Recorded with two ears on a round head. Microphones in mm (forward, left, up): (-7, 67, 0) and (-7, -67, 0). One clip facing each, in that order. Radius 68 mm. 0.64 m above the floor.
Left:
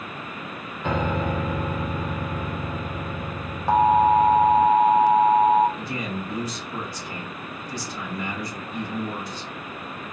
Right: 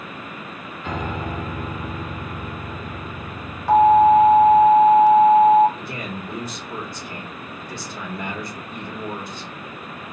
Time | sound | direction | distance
0.8 | a piano | 50° left (ahead or behind) | 0.8 m
3.7 | an alarm | 20° left (ahead or behind) | 1.6 m
5.8 | a man speaking | 45° right (ahead or behind) | 1.5 m